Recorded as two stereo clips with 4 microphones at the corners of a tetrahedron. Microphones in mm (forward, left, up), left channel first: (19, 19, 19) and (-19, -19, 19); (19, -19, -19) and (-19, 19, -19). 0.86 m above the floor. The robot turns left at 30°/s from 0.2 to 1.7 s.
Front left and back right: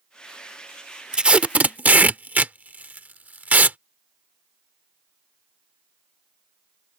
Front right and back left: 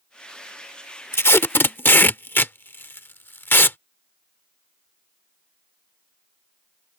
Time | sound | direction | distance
1.1 | tape being pulled | 65° right | ?